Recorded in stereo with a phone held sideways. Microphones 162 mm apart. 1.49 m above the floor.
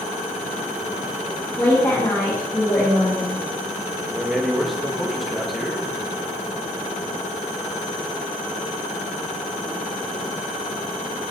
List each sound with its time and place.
1.6 s a woman speaking: 15° left (ahead or behind), 2.5 m
4.1 s a man speaking: centre (ahead or behind), 1.6 m